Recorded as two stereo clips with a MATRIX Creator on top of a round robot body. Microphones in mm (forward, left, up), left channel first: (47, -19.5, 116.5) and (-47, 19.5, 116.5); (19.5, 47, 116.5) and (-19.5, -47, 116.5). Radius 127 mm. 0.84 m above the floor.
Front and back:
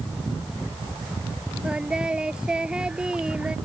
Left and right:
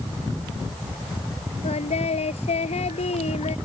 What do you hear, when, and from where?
1.6 s singing: 75° left